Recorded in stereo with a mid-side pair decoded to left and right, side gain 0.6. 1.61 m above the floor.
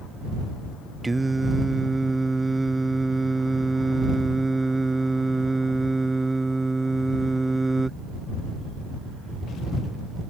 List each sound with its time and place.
1.0 s singing: 10° right